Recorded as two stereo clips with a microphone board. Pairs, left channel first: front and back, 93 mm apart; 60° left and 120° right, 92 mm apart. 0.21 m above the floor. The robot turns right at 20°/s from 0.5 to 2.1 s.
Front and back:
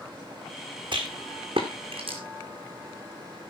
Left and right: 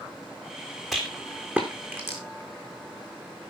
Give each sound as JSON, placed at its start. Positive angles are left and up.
{"t": 0.9, "sound": "a rattle", "azimuth_deg": 155, "distance_m": 3.0}